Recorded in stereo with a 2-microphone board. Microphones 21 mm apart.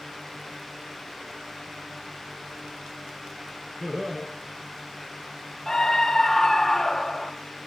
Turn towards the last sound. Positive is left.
turn(degrees=15)  # may be behind; listen again after turning